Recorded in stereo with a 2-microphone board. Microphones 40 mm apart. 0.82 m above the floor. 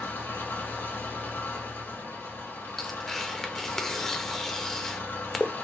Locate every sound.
0.0 s an engine running: 75° left (ahead or behind), 1.8 m
2.8 s tearing paper: 10° left (ahead or behind), 0.5 m